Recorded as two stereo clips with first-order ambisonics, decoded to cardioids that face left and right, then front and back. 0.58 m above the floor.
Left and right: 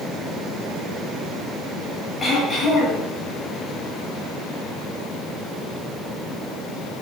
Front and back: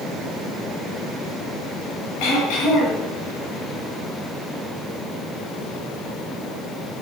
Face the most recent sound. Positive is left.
turn(degrees=15)